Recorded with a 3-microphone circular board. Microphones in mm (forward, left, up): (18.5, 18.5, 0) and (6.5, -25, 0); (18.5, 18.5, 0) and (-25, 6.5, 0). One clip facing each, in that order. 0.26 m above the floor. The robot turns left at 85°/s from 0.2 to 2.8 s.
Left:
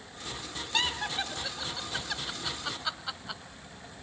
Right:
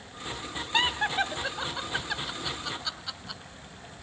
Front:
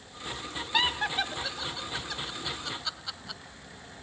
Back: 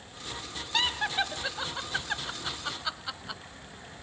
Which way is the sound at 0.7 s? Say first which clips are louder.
Right 5 dB, front 1 dB; 50° right.